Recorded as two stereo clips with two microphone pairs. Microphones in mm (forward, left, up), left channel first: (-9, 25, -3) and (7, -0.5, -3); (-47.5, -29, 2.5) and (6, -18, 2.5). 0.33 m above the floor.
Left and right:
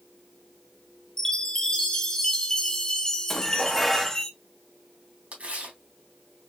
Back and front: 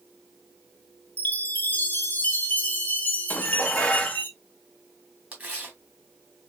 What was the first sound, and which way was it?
A chime, 170° left.